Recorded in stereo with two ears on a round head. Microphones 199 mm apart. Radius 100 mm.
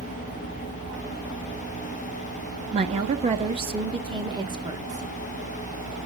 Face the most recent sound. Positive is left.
turn(degrees=-15)  # may be behind; listen again after turning